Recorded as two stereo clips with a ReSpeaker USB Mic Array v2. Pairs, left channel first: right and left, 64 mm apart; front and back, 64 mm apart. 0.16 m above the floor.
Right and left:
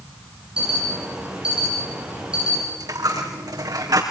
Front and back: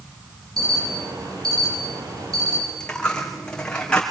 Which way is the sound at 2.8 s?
75° left.